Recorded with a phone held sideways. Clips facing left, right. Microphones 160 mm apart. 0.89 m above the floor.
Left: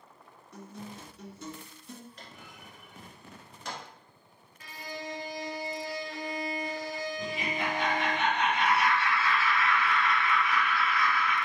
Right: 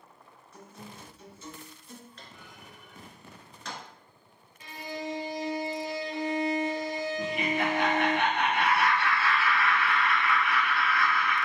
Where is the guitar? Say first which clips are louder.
Left 4 dB; 65° left (ahead or behind), 2 m.